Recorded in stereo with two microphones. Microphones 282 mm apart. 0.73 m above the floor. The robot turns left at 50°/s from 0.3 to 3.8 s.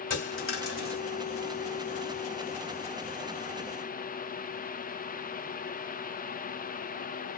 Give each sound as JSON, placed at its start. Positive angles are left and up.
{"t": 0.1, "sound": "a dropped coin", "azimuth_deg": 140, "distance_m": 1.5}